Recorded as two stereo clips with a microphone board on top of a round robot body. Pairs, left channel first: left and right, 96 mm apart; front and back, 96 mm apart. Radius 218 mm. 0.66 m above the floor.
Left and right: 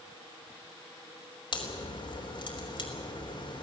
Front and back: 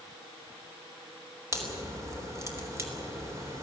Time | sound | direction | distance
1.5 | a crack | 120° left | 4 m